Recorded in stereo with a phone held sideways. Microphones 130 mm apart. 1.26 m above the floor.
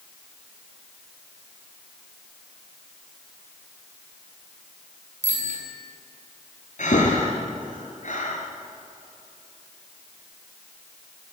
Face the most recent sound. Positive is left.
turn(degrees=75)  # may be behind; listen again after turning